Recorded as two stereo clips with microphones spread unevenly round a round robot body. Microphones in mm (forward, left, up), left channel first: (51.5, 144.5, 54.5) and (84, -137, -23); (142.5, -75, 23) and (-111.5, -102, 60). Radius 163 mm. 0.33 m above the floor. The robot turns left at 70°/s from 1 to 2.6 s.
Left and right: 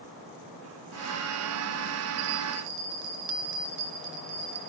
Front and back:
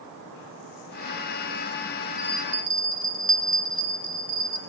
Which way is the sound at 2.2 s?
80° right.